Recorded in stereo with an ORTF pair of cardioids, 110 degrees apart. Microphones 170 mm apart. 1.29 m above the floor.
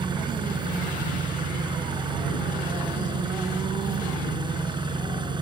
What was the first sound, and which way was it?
An engine running, 30° right.